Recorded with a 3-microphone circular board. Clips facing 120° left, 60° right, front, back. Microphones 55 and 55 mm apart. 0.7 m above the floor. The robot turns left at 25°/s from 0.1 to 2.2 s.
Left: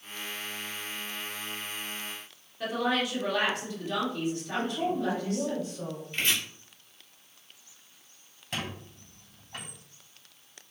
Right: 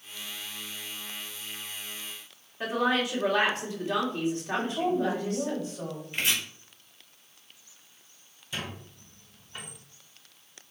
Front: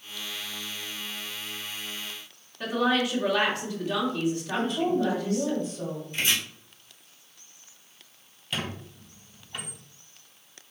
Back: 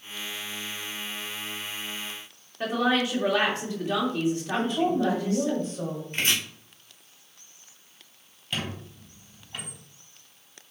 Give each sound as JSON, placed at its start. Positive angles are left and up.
{"t": 2.6, "sound": "a woman speaking", "azimuth_deg": -115, "distance_m": 2.5}
{"t": 4.5, "sound": "a woman speaking", "azimuth_deg": -125, "distance_m": 4.0}
{"t": 6.1, "sound": "chopping", "azimuth_deg": -140, "distance_m": 3.5}
{"t": 8.5, "sound": "a squeak", "azimuth_deg": 90, "distance_m": 3.5}